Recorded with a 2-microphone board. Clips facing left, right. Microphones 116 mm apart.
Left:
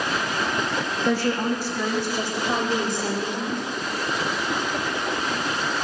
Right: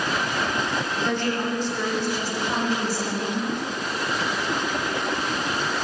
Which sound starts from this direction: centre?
A woman speaking, at 1.1 s.